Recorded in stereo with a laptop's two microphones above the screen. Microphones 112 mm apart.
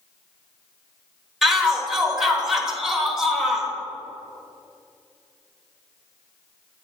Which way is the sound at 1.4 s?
5° right (ahead or behind).